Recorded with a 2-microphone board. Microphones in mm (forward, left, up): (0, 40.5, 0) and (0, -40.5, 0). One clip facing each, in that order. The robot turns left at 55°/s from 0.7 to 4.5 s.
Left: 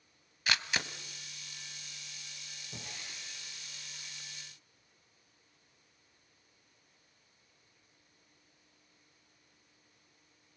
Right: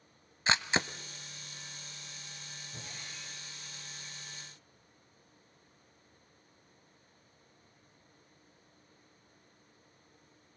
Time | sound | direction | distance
0.5 | a camera shutter | 25° right (ahead or behind) | 0.7 m
2.7 | breaking glass | 115° left | 7.5 m